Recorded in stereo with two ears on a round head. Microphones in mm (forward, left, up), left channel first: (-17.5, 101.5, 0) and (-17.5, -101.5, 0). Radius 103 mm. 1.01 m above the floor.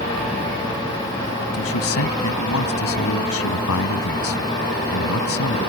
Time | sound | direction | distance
1.5 | a man speaking | 75° left (ahead or behind) | ?